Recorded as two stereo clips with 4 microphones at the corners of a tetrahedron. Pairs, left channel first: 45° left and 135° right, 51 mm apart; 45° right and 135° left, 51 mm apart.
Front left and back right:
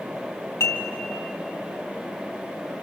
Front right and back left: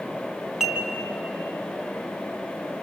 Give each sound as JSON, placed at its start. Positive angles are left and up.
{"t": 0.6, "sound": "dishes clattering", "azimuth_deg": 55, "distance_m": 2.5}